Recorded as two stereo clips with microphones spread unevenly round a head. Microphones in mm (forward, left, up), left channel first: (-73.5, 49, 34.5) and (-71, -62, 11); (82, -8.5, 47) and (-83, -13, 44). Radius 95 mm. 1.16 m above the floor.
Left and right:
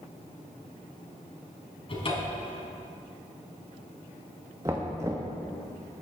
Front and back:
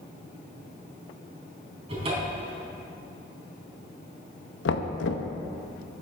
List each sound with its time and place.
1.9 s a cupboard door: 120° left, 3.5 m
4.7 s knocking: 10° right, 0.8 m